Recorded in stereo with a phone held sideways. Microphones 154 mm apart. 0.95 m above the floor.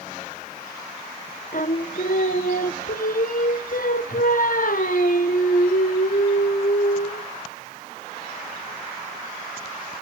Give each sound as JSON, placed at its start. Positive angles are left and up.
{"t": 1.5, "sound": "singing", "side_deg": 65, "distance_m": 1.1}